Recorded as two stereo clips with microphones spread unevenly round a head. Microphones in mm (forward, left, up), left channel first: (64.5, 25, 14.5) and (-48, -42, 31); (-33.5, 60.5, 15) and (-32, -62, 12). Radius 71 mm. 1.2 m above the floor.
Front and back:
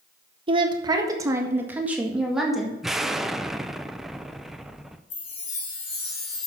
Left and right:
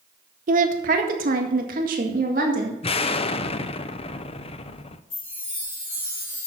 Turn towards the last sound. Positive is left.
turn(degrees=35)